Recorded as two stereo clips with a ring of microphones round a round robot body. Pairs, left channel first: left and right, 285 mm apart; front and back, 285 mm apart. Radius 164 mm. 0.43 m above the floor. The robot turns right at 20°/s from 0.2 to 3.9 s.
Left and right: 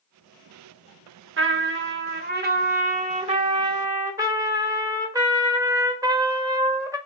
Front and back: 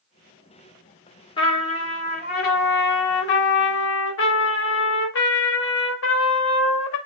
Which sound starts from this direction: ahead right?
A trumpet, at 1.4 s.